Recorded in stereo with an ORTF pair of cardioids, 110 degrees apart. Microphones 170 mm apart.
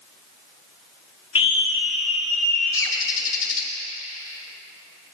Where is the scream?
30° left, 0.6 m.